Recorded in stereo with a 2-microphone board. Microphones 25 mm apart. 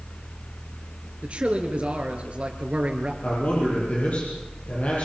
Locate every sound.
1.2 s a man speaking: 45° right (ahead or behind), 3.5 m
3.2 s a man speaking: 50° left (ahead or behind), 9 m